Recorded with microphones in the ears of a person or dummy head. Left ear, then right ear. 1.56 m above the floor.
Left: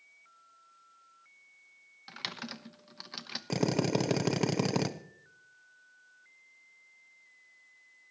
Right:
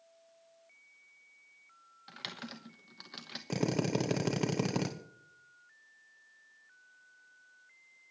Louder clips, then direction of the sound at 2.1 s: Left 4 dB; 15° left (ahead or behind).